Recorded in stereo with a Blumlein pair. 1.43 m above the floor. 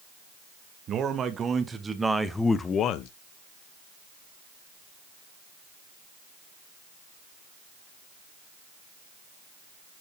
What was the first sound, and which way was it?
A man speaking, 25° right.